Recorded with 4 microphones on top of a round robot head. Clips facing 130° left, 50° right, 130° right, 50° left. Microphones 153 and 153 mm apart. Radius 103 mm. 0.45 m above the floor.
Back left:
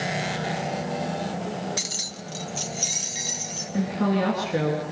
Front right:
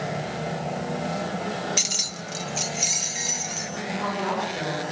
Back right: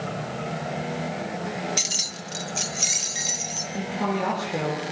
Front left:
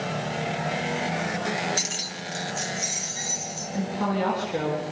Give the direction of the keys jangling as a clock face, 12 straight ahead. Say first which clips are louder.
Front right 2 dB, front left 1 dB; 3 o'clock.